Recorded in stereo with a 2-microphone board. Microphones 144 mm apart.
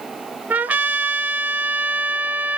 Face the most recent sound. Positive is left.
turn(degrees=-10)  # may be behind; listen again after turning